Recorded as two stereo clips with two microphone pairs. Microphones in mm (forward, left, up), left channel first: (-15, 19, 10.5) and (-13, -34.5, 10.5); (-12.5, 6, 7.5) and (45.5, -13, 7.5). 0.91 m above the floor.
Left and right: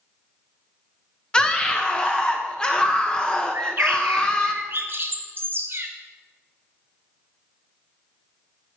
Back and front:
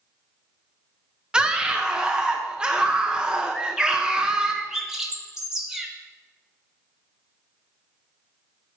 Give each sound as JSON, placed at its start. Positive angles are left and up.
{"t": 1.3, "sound": "a scream", "azimuth_deg": 35, "distance_m": 0.7}
{"t": 3.5, "sound": "a bird", "azimuth_deg": -90, "distance_m": 1.2}